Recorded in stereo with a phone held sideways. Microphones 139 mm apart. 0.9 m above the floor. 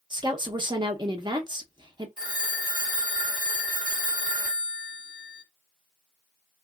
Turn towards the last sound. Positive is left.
turn(degrees=-85)